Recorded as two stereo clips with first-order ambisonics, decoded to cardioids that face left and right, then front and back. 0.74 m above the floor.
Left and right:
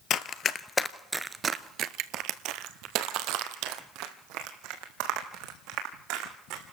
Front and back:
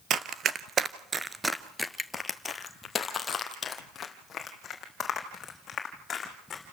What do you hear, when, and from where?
0.1 s running footsteps: 135° left, 1.0 m; by 6.6 s 65° right, 4 m